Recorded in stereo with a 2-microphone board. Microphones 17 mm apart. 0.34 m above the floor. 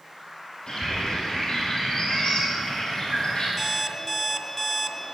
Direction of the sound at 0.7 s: 40° left (ahead or behind).